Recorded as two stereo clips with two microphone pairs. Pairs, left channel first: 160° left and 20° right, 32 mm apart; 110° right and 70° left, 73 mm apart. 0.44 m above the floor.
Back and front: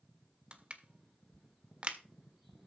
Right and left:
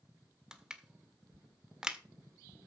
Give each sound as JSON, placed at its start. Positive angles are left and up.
{"t": 0.5, "sound": "crushing", "azimuth_deg": -5, "distance_m": 1.6}